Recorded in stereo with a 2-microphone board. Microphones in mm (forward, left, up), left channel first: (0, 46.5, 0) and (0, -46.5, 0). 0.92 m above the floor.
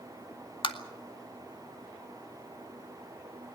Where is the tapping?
65° left (ahead or behind), 1.9 m.